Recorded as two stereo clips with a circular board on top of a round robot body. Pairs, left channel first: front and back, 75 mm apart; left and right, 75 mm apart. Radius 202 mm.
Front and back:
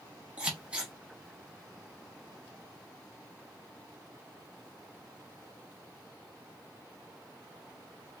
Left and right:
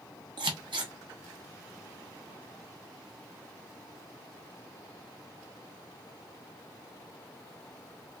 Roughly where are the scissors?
Right.